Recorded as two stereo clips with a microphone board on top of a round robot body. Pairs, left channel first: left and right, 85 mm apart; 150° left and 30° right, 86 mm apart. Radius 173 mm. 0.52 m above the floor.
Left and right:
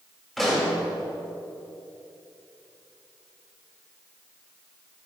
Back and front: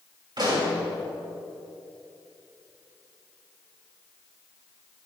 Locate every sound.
0.4 s a pop: straight ahead, 4 m